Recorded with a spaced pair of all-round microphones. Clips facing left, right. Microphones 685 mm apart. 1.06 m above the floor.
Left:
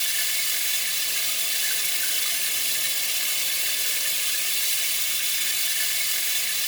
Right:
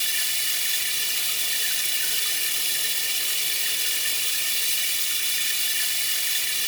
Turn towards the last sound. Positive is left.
turn(degrees=5)  # may be behind; listen again after turning